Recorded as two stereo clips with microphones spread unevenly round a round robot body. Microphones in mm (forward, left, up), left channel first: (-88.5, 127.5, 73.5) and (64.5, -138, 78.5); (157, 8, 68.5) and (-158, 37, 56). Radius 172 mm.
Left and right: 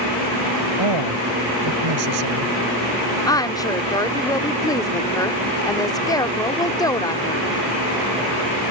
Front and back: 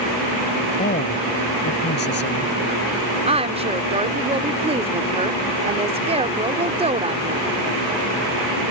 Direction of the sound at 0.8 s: 75° right.